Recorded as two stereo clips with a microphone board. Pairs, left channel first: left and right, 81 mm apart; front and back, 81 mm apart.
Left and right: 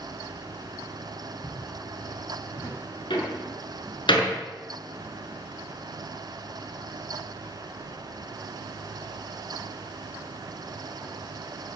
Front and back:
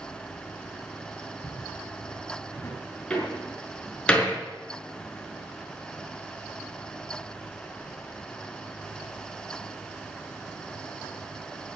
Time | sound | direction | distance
1.4 | footsteps | 60° left | 9 m
3.1 | a door slam | 80° left | 4.5 m